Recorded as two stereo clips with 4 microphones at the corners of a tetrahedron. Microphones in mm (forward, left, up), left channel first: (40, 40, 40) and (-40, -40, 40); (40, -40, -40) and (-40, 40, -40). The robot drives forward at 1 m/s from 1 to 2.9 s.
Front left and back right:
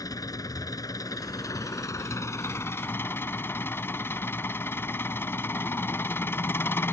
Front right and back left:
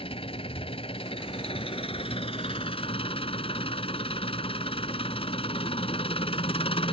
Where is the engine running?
10° right; by 6.9 s 25° right.